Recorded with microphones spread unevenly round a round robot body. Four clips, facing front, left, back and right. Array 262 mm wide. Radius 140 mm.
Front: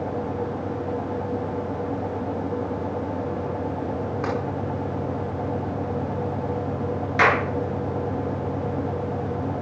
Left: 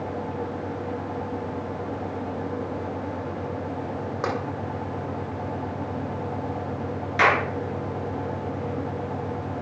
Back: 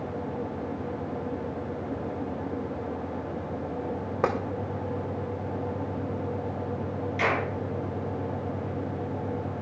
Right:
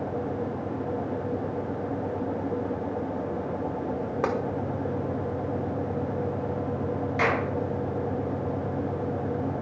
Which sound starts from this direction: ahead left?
A clap, at 7.2 s.